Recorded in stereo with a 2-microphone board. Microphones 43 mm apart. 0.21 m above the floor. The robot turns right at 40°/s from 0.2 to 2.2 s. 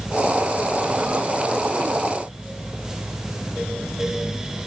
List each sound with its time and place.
Only background noise.